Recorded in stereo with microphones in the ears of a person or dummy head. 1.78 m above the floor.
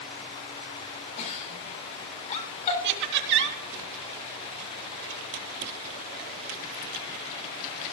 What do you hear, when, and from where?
1.2 s a giggle: 40° left (ahead or behind), 3.5 m
2.8 s laughter: 60° right (ahead or behind), 3.5 m